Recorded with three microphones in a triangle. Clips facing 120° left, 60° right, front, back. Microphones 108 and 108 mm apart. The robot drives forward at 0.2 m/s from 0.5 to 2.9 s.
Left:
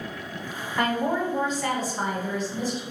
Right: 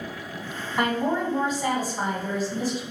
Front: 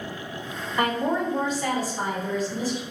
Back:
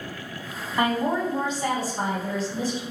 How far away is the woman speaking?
About 1.6 m.